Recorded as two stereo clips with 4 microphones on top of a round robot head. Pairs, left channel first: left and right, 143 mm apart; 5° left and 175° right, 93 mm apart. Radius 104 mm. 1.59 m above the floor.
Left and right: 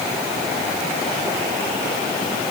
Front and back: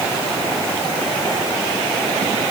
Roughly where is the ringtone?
No ringtone in this recording.